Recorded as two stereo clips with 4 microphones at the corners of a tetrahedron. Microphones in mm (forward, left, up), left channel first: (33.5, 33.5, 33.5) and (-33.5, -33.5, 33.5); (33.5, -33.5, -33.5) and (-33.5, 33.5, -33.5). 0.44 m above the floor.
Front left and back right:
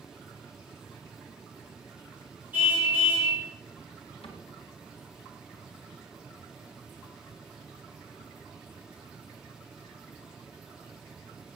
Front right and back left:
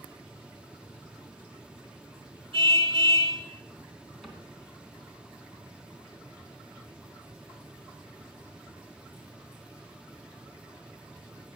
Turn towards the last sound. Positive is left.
turn(degrees=45)